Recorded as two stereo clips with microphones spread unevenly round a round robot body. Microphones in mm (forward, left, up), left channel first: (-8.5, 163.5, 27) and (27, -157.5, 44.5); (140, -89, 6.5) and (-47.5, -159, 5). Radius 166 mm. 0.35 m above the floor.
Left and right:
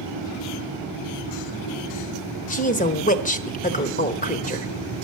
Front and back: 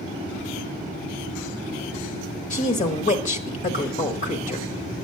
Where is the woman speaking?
50° left, 1.1 m.